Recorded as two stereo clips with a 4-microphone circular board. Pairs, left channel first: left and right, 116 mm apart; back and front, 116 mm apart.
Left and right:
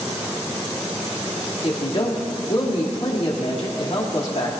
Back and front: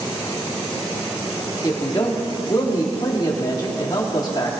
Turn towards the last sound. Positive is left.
turn(degrees=125)